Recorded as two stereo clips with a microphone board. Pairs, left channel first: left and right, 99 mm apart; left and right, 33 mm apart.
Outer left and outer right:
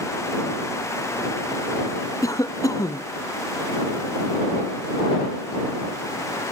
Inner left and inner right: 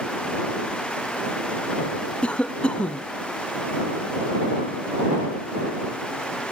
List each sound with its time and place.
2.2 s a cough: 35° left (ahead or behind)